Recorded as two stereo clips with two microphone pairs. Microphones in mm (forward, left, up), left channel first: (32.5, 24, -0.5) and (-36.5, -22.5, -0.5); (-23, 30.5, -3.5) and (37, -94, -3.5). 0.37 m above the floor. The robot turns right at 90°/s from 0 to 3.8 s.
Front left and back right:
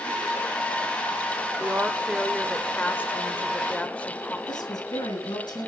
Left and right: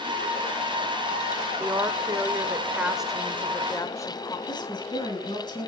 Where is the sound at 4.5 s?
60° left, 3.5 m.